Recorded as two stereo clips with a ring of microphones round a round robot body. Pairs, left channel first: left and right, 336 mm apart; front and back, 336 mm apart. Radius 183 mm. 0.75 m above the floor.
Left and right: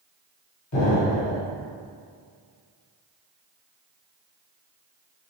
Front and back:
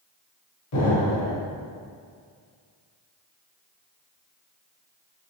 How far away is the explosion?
About 1.0 m.